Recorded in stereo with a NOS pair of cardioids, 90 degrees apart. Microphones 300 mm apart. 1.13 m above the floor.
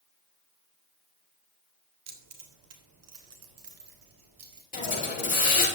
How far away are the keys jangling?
About 2.5 m.